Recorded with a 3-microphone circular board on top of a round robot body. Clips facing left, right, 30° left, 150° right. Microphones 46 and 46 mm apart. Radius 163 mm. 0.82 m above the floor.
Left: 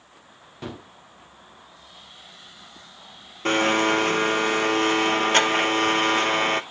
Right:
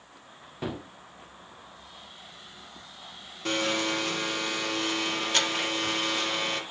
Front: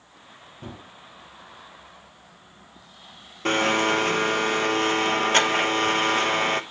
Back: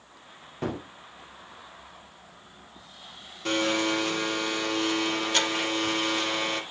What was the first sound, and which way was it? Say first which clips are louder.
A gunshot: right 2 dB, back 9 dB; 170° right.